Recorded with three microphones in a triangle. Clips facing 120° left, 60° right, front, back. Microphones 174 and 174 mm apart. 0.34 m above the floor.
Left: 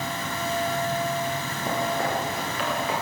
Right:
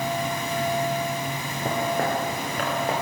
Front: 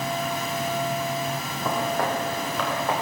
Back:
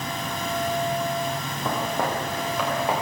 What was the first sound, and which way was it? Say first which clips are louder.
Footsteps: right 2 dB, front 1 dB; 95° right.